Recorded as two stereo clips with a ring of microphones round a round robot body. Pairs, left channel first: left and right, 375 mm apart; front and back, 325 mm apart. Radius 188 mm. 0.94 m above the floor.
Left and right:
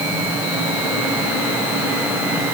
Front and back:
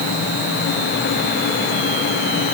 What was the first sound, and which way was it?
Only background noise.